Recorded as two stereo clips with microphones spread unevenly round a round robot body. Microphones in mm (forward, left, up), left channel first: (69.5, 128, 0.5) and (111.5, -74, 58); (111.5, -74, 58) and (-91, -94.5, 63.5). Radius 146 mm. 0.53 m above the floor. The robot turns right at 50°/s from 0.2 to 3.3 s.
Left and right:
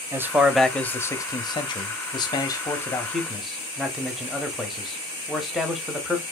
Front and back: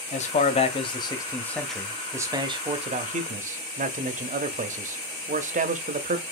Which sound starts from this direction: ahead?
A man speaking, at 0.1 s.